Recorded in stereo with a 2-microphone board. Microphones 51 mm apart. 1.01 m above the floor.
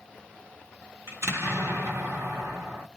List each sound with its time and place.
1.1 s an explosion: 55° right (ahead or behind), 1.3 m